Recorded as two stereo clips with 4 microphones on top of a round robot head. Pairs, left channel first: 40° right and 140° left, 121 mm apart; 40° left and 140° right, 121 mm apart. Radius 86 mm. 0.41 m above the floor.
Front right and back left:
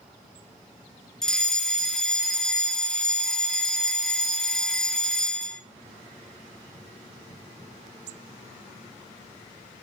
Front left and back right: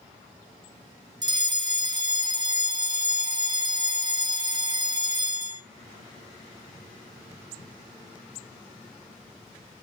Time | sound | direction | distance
1.2 | a fire alarm | 120° right | 2 m